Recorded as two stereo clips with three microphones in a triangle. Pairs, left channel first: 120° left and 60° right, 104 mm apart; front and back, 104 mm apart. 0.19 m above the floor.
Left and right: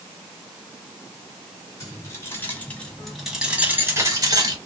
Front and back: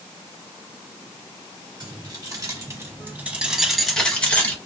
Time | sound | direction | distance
1.8 | keys jangling | 165° left | 1.5 m